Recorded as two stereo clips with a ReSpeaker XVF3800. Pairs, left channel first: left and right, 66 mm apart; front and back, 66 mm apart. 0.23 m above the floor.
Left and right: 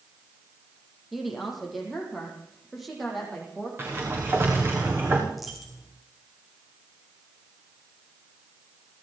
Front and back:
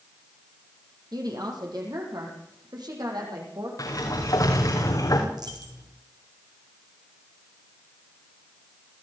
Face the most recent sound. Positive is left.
turn(degrees=-175)